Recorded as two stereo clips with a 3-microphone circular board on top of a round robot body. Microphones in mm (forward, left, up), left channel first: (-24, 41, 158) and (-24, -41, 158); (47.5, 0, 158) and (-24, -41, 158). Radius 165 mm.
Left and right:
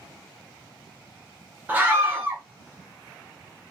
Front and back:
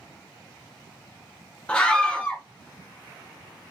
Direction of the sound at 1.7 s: 35° right.